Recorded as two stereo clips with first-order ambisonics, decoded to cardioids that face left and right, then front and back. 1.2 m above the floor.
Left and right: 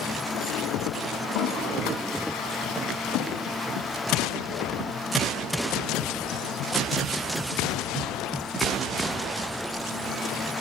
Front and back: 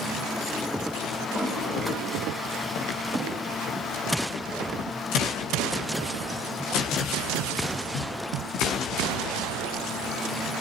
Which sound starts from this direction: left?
A toilet flushing, at 1.2 s.